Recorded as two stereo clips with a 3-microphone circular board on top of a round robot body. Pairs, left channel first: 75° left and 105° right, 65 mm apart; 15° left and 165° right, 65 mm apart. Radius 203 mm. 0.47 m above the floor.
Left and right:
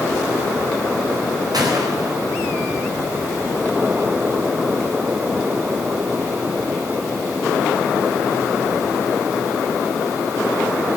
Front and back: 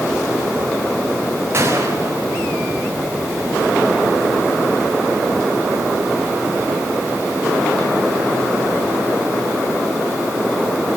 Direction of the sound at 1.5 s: 115° right.